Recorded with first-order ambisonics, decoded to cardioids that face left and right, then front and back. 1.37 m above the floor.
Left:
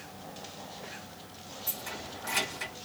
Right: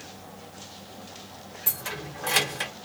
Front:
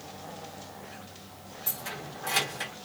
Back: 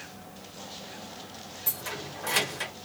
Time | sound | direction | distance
1.7 | keys jangling | 100° right | 1.0 m